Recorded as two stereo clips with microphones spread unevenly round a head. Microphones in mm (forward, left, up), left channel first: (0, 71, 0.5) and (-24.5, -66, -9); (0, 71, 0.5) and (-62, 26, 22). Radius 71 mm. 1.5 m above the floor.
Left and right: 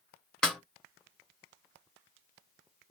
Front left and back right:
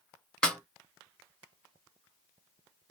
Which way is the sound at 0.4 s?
140° left.